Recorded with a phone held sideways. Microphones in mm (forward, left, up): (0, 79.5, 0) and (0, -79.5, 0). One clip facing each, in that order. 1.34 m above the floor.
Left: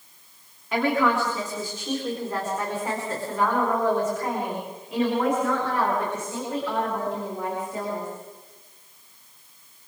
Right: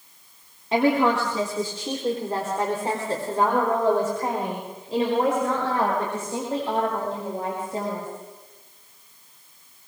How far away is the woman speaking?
About 3.5 m.